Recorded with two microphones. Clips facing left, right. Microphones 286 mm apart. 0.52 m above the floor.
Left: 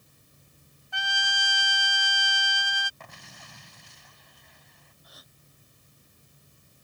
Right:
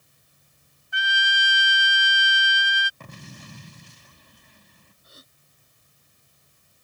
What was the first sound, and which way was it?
A trumpet, 20° right (ahead or behind).